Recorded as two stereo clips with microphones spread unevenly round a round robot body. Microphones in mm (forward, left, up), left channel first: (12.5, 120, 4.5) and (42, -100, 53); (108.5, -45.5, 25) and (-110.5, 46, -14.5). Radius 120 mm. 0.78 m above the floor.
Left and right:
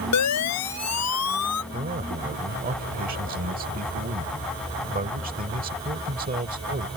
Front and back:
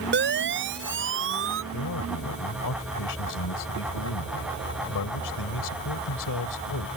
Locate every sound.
0.1 s a siren: 110° left; by 1.6 s 120° left
1.7 s a man speaking: 30° right